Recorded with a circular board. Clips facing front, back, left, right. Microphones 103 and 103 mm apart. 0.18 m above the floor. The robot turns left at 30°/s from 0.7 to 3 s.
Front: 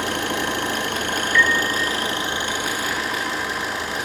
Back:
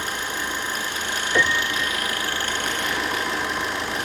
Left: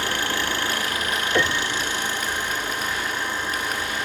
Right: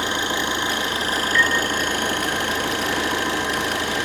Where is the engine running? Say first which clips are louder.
Front 5 dB, right 2 dB; 20° right, 2.5 m; by 4.0 s 90° right, 2.5 m.